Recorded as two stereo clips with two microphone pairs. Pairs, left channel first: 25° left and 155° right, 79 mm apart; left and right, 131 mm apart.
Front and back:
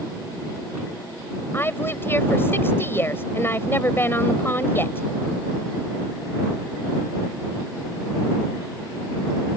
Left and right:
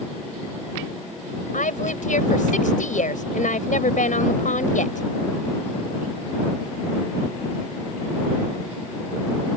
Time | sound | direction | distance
1.5 | a woman speaking | 85° left | ?